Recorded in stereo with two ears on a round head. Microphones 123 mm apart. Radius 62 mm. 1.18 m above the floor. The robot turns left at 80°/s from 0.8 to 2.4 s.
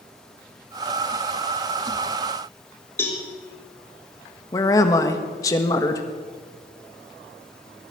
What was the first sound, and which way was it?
A cowbell, 15° left (ahead or behind).